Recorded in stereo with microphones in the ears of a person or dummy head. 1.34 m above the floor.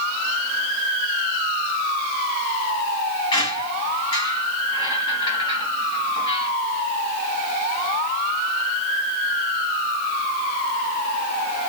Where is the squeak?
25° left (ahead or behind), 3.5 m.